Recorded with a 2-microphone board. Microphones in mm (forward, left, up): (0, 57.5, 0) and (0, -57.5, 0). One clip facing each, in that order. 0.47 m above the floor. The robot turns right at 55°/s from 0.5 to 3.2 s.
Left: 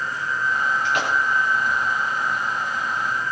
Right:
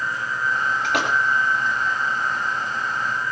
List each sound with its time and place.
0.8 s a splash: 80° right, 3.5 m; by 1.1 s 65° right (ahead or behind), 3.5 m